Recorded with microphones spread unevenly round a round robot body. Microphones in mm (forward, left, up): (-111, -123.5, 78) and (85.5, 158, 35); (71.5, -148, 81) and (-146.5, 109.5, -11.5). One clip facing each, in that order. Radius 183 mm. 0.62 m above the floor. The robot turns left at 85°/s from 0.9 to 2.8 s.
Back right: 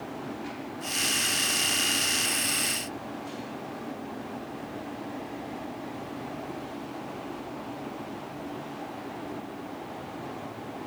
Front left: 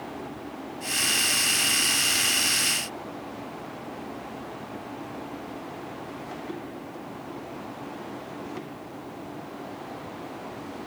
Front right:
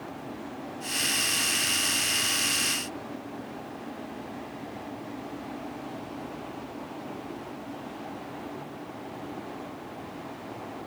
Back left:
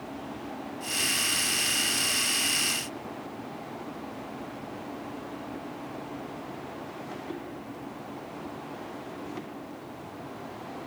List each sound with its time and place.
Only background noise.